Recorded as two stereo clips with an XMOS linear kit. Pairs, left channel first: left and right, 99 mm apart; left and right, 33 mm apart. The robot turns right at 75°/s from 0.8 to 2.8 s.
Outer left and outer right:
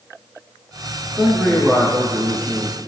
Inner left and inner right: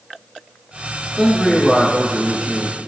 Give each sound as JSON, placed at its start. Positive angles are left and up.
{"t": 1.2, "sound": "a man speaking", "azimuth_deg": 170, "distance_m": 1.3}